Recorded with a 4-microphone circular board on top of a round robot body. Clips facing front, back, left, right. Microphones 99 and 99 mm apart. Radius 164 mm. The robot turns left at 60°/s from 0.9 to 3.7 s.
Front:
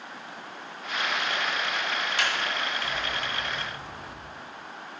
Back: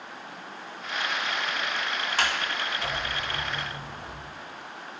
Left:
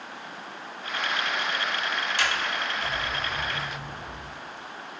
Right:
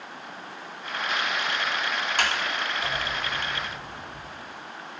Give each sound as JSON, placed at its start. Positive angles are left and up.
{"t": 2.2, "sound": "a sliding door", "azimuth_deg": -130, "distance_m": 2.5}